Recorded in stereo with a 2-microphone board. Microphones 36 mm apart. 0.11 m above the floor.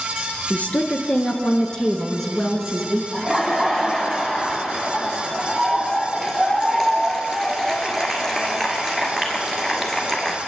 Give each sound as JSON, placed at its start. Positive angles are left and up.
{"t": 0.5, "sound": "a woman speaking", "side_deg": 45, "distance_m": 2.0}
{"t": 3.1, "sound": "laughter", "side_deg": 5, "distance_m": 1.5}